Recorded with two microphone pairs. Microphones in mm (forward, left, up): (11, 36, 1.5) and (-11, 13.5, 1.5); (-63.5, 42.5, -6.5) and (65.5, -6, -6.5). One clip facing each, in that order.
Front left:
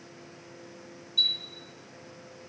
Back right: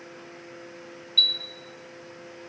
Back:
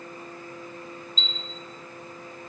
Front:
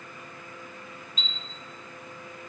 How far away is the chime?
About 1.7 m.